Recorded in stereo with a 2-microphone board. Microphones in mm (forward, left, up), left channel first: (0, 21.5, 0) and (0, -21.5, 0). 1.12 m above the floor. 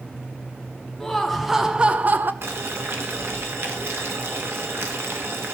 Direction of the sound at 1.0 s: 10° left (ahead or behind).